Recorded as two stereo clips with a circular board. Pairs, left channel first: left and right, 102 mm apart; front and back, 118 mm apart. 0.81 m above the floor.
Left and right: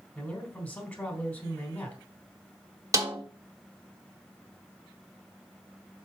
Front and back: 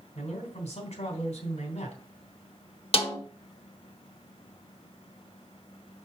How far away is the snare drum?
About 1.6 m.